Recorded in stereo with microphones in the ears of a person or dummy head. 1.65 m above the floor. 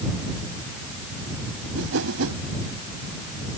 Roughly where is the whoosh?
Right.